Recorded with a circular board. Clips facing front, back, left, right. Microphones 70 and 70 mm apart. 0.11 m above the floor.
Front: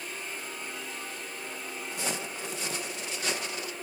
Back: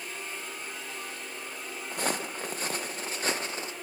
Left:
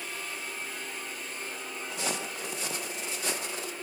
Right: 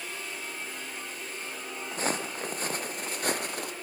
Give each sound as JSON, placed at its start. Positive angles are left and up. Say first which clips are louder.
{"t": 1.9, "sound": "footsteps", "louder": "back 4 dB, right 4 dB", "azimuth_deg": -140, "distance_m": 3.5}